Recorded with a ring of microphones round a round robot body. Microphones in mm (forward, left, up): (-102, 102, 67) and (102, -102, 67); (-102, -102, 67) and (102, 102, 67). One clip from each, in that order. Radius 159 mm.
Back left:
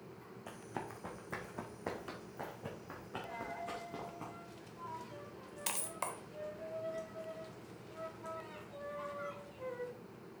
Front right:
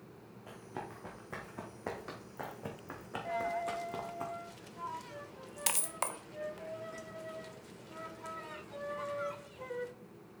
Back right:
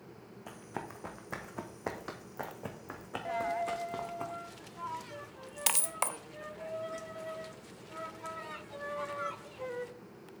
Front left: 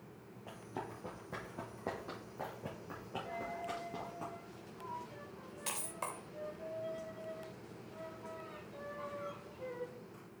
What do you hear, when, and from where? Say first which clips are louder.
0.5 s running footsteps: even, back right 2 dB; 165° right, 1.6 m; by 4.2 s 100° right, 2 m
3.2 s a dropped coin: front right 10 dB, back right 11 dB; 115° right, 0.6 m